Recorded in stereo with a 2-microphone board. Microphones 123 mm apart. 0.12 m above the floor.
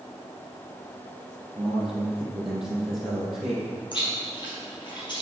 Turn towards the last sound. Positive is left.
turn(degrees=40)  # may be behind; listen again after turning